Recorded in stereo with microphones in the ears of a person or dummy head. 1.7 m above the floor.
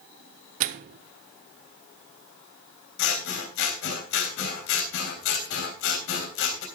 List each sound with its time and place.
0.6 s a microwave: 45° right (ahead or behind), 0.7 m
3.0 s scissors: 65° left (ahead or behind), 3 m